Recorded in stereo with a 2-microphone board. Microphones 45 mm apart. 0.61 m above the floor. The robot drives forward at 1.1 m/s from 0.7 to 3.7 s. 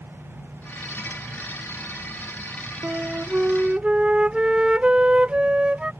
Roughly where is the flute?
Right.